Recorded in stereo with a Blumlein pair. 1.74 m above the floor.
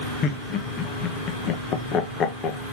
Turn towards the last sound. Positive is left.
turn(degrees=30)